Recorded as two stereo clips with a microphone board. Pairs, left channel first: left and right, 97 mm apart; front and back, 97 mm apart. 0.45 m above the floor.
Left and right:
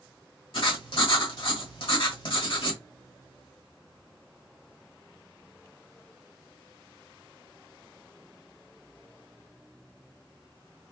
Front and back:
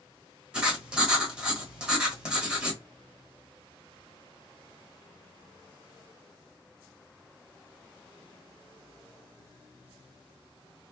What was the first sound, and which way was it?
Writing, 100° left.